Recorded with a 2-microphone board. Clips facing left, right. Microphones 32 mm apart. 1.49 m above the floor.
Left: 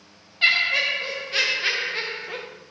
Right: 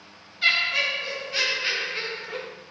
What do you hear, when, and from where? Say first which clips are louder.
0.4 s laughter: left 2 dB; 60° left (ahead or behind), 1.5 m; by 2.5 s 55° left (ahead or behind), 0.7 m